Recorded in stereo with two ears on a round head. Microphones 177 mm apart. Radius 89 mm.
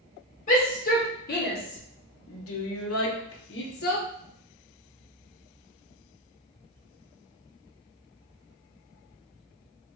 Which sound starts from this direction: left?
A shout, at 0.5 s.